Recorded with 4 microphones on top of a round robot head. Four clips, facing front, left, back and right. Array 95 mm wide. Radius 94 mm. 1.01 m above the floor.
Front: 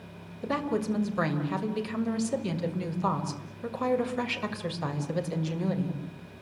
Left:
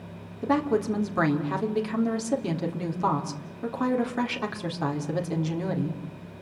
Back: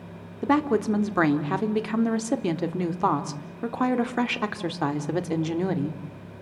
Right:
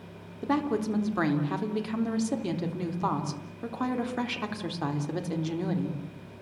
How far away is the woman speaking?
About 4 m.